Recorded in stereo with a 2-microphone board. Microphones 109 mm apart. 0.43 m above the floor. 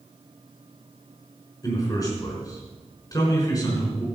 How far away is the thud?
No thud in this recording.